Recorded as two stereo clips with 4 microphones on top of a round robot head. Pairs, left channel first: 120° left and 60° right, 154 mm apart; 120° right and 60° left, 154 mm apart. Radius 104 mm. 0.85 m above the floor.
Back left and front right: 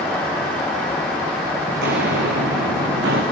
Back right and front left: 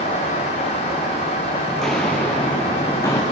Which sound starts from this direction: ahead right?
Footsteps, at 1.7 s.